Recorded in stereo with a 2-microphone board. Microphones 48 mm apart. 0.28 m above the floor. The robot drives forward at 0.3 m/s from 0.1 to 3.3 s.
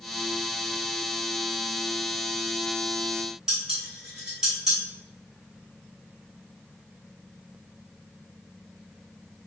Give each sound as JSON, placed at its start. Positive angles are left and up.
{"t": 3.5, "sound": "dishes clattering", "side_deg": -15, "distance_m": 1.6}